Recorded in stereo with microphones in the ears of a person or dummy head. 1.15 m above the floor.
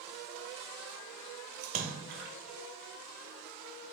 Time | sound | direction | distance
1.6 | a splash | 45° right (ahead or behind) | 0.9 m